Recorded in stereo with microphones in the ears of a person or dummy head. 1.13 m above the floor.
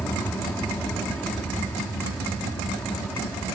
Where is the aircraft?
5° left (ahead or behind).